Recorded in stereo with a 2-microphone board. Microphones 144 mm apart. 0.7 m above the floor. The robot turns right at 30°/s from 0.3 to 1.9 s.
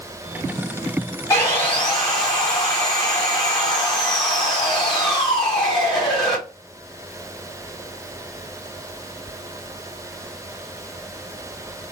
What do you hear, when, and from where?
1.3 s sawing: 20° left (ahead or behind), 1.9 m; by 6.4 s 5° left (ahead or behind), 1.9 m